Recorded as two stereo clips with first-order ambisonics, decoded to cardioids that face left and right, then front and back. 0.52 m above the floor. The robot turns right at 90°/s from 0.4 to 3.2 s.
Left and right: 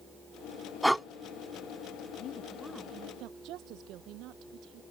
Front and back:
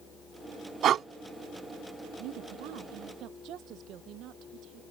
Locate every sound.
0.8 s breathing: 175° left; by 1.1 s 165° right
2.2 s a woman speaking: 135° left; by 4.8 s 130° right